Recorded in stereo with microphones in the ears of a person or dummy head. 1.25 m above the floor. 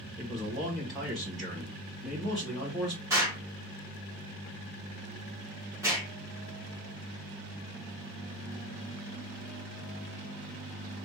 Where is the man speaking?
5° left (ahead or behind), 1.7 m.